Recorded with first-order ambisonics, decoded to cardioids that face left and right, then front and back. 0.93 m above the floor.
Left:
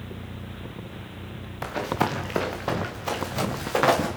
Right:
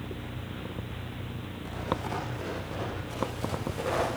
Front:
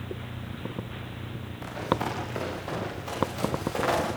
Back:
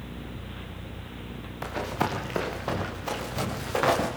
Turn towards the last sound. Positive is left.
turn(degrees=105)